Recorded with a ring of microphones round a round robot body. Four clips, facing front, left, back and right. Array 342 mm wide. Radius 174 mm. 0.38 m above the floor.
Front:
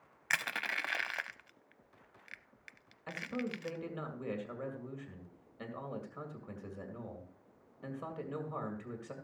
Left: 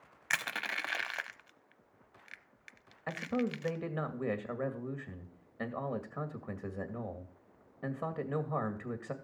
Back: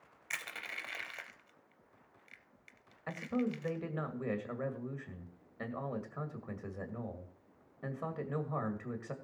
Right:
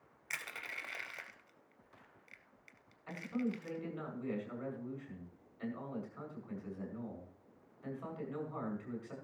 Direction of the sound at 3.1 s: 105° left.